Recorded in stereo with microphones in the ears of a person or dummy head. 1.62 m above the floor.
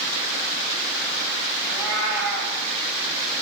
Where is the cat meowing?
10° right (ahead or behind), 5 m.